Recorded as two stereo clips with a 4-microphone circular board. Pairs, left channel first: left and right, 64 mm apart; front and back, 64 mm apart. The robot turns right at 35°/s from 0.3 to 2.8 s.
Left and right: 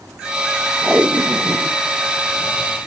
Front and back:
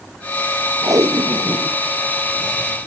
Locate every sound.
0.8 s tape being pulled: 160° right; by 1.8 s 130° right